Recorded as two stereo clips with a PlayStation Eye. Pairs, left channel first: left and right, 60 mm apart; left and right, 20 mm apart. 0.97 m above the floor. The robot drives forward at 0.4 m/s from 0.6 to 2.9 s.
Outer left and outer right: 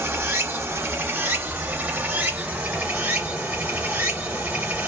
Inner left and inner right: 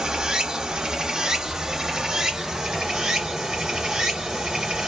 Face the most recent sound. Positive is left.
turn(degrees=-25)  # may be behind; listen again after turning